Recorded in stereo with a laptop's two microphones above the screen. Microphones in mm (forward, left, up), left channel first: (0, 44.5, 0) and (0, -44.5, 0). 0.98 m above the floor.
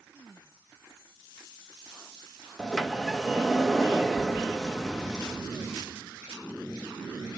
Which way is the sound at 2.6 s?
Centre (ahead or behind).